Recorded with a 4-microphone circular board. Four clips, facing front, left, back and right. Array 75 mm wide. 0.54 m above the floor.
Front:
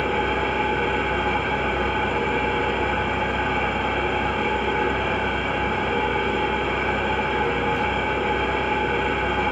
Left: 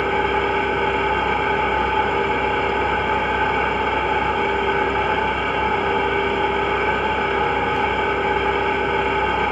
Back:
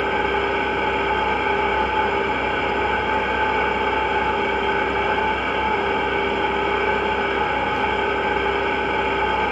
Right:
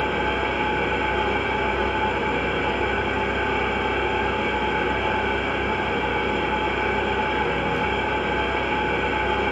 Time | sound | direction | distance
0.0 | an engine running | 120° left | 1.2 m